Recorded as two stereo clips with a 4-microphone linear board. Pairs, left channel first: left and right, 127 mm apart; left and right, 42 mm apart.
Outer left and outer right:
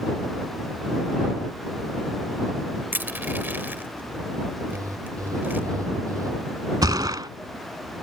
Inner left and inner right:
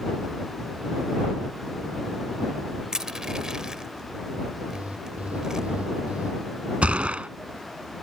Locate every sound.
2.9 s crushing: 15° right (ahead or behind)
4.7 s an alarm: 25° right (ahead or behind)
6.8 s a gunshot: 30° right (ahead or behind)